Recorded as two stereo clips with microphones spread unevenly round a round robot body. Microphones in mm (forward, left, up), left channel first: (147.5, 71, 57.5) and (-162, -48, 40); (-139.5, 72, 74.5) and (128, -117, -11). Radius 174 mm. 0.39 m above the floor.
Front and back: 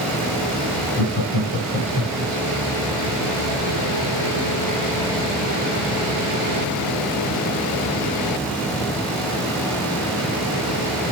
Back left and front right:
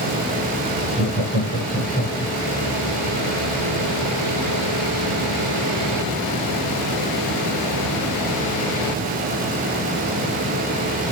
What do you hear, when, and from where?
1.0 s laughter: 30° left, 5 m; by 2.3 s 20° left, 5.5 m